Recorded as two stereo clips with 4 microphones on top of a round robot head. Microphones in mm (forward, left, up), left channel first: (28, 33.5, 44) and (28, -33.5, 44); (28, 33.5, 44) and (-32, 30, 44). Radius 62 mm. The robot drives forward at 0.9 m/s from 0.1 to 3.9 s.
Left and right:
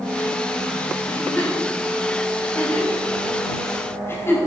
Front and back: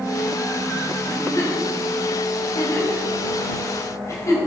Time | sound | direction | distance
1.1 | a giggle | 25° left | 7.5 m